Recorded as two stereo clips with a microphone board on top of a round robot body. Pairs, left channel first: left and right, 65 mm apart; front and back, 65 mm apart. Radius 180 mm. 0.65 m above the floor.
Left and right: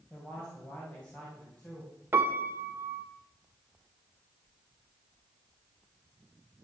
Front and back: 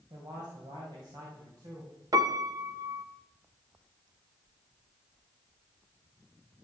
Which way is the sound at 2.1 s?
150° right.